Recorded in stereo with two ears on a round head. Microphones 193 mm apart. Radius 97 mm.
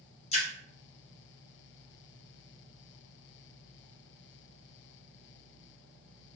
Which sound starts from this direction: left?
A splash, at 0.3 s.